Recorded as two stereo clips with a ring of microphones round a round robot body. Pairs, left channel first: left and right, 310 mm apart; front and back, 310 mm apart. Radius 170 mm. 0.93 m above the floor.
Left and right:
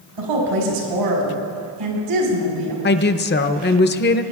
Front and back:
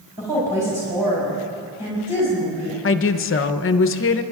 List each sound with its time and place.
0.2 s a woman speaking: 95° right, 5 m
2.8 s a woman speaking: 40° left, 0.7 m